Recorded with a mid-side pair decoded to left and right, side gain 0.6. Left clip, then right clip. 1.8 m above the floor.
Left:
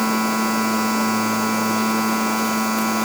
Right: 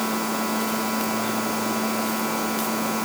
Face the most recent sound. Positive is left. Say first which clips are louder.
# left 5 dB
turn(degrees=30)